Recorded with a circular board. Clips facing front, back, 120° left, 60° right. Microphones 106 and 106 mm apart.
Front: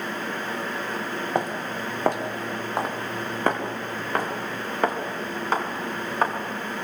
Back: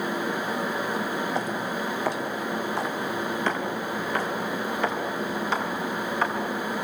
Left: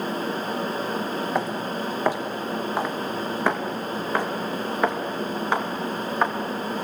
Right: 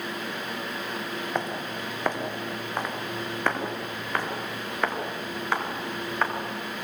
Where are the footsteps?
40° left, 4 m; by 6.4 s 45° left, 7 m.